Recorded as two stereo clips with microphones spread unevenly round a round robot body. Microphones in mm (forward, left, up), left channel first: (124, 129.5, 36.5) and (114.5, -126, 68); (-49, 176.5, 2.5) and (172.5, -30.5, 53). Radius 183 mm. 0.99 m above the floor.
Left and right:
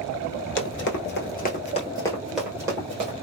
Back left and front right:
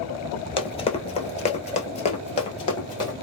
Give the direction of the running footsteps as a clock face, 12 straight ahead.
10 o'clock.